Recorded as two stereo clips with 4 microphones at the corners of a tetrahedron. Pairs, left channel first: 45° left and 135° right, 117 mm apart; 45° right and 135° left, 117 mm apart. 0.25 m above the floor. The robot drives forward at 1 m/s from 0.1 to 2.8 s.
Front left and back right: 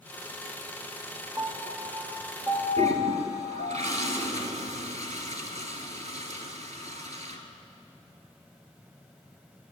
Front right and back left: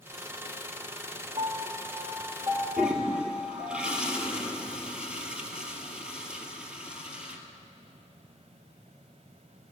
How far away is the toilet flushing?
About 1.0 m.